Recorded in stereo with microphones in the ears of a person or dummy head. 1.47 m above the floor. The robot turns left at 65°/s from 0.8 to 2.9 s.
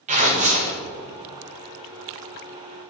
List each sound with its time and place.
0.1 s tearing paper: 35° right (ahead or behind), 0.8 m